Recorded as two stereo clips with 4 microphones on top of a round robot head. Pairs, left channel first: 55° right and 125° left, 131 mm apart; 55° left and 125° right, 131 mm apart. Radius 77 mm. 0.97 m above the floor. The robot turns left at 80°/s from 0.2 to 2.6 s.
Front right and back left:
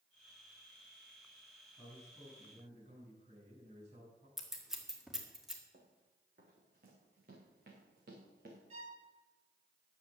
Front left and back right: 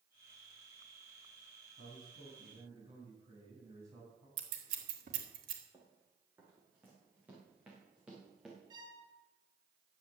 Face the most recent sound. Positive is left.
turn(degrees=170)